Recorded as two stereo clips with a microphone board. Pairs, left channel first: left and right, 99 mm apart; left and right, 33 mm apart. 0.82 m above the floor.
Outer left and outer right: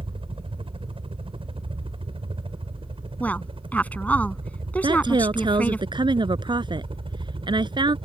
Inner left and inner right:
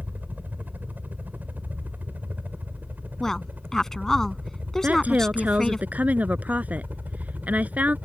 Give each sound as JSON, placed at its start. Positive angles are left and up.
{"t": 0.0, "sound": "a helicopter", "side_deg": -65}
{"t": 3.2, "sound": "a woman speaking", "side_deg": 15}
{"t": 4.8, "sound": "a woman speaking", "side_deg": -55}